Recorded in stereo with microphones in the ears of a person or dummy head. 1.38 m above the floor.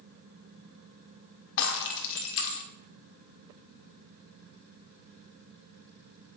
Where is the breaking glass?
65° left (ahead or behind), 1.9 m.